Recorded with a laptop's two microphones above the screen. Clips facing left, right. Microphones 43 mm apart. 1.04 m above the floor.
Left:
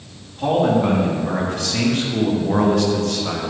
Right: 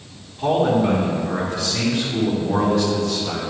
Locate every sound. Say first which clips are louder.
0.4 s a man speaking: left 1 dB; 45° left (ahead or behind), 2.0 m; by 3.5 s 60° left (ahead or behind), 1.2 m